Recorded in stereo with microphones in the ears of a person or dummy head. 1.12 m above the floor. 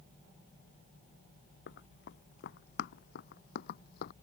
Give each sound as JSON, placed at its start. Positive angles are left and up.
{"t": 1.7, "sound": "running footsteps", "side_deg": 75}